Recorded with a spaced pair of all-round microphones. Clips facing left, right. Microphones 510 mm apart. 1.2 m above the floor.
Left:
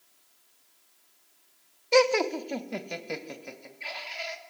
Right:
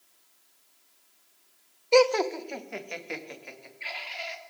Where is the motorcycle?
I don't hear a motorcycle.